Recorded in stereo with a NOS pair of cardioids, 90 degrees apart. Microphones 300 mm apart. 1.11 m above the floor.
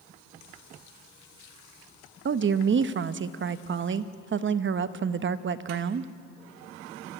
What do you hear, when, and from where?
2.2 s a woman speaking: 40° right, 1.1 m